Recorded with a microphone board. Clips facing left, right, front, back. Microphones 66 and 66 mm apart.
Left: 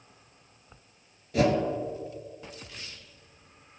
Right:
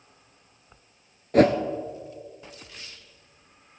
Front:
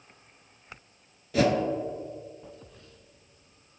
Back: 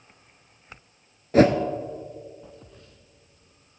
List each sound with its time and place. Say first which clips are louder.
1.3 s a whoosh: right 6 dB, back 6 dB; 125° right, 0.8 m